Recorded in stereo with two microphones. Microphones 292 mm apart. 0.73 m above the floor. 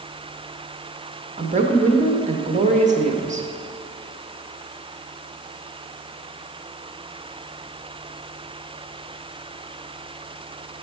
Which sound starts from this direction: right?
A woman speaking, at 1.4 s.